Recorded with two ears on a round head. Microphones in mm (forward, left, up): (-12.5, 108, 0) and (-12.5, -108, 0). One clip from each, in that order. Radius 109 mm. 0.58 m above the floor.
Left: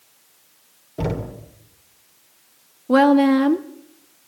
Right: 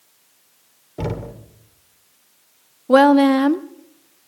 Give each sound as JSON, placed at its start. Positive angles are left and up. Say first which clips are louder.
{"t": 1.0, "sound": "knocking", "louder": "left 1 dB", "side_deg": -10, "distance_m": 1.8}
{"t": 2.9, "sound": "a woman speaking", "louder": "right 3 dB", "side_deg": -20, "distance_m": 0.7}